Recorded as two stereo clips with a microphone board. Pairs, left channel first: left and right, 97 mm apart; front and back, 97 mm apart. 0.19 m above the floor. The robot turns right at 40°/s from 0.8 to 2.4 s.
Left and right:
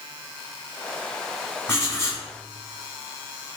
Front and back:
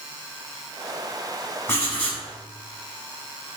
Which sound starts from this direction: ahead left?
Writing, at 1.7 s.